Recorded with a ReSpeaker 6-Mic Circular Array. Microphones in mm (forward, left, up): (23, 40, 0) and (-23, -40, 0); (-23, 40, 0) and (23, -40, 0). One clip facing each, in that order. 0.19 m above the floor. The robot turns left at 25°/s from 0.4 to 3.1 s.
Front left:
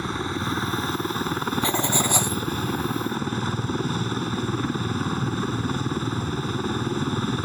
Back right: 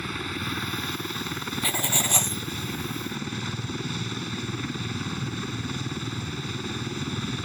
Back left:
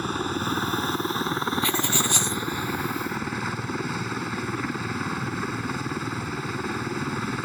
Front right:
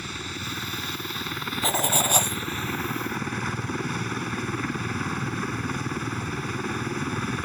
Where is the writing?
5° right; by 2.4 s 25° right.